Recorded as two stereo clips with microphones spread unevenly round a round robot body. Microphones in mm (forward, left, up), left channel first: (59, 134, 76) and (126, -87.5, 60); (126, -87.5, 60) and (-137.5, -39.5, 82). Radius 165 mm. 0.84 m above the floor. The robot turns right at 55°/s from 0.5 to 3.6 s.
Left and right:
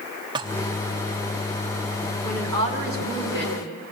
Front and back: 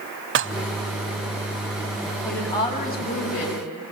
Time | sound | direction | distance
0.3 | dishes clattering | 145° right | 0.8 m
2.2 | a woman speaking | 100° right | 7 m